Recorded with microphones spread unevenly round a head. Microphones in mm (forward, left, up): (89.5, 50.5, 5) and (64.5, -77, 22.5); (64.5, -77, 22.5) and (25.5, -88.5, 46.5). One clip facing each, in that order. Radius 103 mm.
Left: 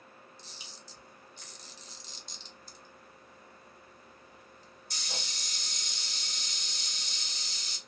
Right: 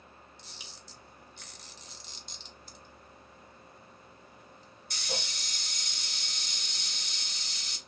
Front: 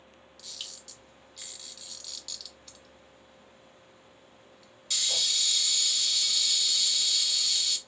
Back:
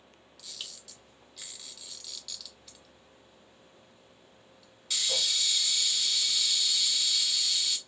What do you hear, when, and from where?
0.4 s a camera shutter: 100° right, 0.8 m